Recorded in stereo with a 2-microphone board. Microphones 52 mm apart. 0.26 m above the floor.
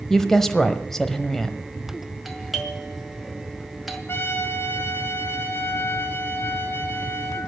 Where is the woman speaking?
5° left (ahead or behind), 1.0 m.